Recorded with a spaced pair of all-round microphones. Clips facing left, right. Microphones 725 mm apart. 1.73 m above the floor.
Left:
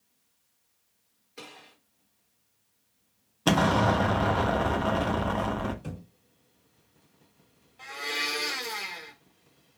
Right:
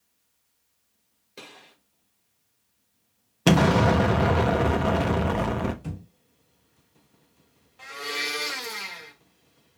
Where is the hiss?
I don't hear a hiss.